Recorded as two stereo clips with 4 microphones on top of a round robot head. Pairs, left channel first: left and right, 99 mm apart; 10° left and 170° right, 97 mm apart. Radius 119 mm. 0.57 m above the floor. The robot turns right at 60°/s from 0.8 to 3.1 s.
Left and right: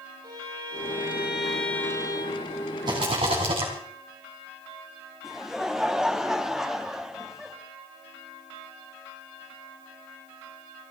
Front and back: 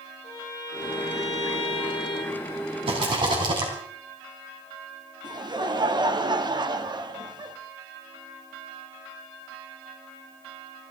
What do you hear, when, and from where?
0.2 s a violin: 40° right, 6.5 m; by 2.4 s 55° left, 6.5 m
2.9 s a rattle: 140° right, 3.5 m; by 3.7 s 125° right, 3.5 m
5.2 s laughter: 175° right, 1.6 m